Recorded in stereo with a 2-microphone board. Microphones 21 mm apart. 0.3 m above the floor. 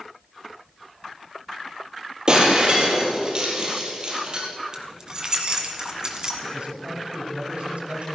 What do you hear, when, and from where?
2.3 s breaking glass: 35° right (ahead or behind), 3.5 m
4.7 s keys jangling: 30° right (ahead or behind), 1.9 m
6.4 s a man speaking: 60° right (ahead or behind), 3 m